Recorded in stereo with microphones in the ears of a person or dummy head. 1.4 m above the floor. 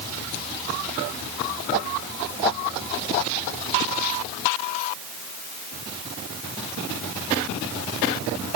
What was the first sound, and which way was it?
Only background noise.